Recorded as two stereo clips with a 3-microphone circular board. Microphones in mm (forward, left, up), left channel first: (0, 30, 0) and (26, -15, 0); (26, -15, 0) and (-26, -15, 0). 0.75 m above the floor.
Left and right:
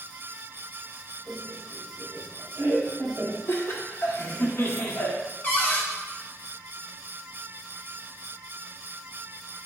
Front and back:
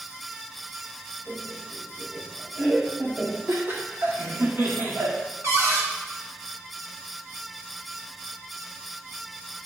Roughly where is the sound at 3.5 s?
Behind left.